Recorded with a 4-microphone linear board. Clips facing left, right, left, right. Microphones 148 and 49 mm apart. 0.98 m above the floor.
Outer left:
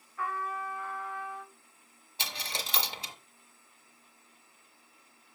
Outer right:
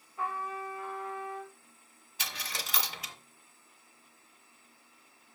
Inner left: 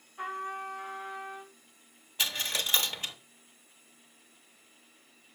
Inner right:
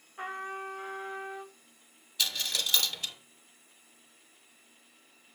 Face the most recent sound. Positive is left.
turn(degrees=30)  # may be behind; listen again after turning